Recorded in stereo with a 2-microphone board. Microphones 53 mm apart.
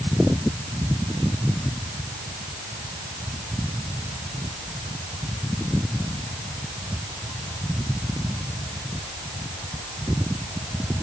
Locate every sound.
Only background noise.